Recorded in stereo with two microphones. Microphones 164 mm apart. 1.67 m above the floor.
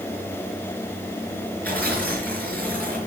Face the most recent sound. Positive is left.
turn(degrees=10)  # may be behind; listen again after turning